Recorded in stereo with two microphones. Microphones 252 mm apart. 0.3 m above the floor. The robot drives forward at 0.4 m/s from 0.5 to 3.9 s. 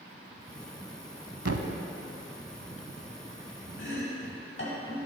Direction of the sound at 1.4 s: 80° right.